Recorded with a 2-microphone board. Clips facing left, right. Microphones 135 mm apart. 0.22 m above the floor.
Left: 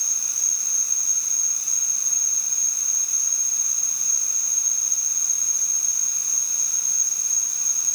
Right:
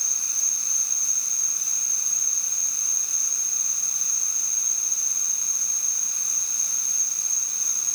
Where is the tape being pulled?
No tape being pulled in this recording.